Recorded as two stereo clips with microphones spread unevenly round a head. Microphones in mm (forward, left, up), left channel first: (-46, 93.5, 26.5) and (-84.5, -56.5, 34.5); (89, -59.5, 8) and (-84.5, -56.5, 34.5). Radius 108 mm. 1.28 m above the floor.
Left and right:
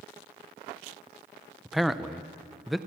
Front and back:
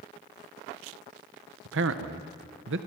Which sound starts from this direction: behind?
A man speaking, at 1.6 s.